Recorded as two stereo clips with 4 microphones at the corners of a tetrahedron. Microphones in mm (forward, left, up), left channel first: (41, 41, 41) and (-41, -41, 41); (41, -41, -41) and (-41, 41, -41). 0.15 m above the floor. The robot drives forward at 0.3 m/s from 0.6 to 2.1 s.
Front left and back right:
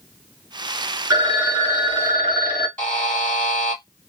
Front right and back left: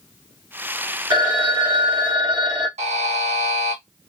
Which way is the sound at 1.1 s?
Straight behind.